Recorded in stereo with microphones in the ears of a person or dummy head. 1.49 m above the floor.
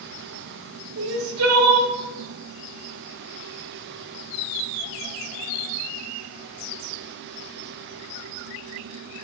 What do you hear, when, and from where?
1.0 s crying: 80° right, 0.7 m